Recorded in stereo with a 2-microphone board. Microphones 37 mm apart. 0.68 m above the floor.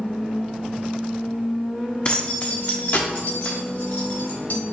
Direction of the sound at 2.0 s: 35° left (ahead or behind).